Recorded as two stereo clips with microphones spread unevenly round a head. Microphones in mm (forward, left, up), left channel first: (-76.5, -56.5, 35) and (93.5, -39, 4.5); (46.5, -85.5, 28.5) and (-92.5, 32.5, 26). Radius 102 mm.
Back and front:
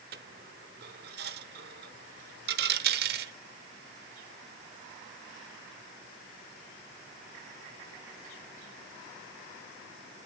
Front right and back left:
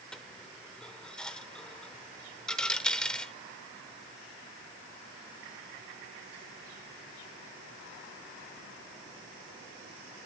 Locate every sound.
0.1 s a dropped coin: 45° left, 0.8 m